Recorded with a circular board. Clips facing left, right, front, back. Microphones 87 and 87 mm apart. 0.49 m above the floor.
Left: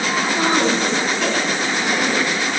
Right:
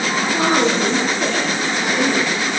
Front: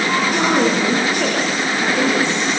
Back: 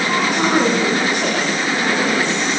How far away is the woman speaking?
About 9.5 m.